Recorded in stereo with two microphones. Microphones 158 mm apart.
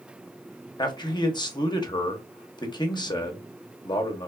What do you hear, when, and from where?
0.8 s a man speaking: 25° left (ahead or behind), 0.6 m